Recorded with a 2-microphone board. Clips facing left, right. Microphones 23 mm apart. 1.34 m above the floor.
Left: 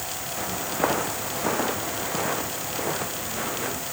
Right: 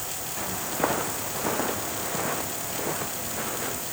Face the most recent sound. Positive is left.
turn(degrees=5)  # may be behind; listen again after turning